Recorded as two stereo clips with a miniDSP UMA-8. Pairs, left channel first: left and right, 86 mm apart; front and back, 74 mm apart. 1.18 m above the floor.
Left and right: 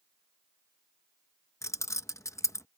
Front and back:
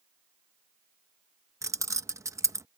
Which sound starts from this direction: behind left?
Keys jangling, at 1.6 s.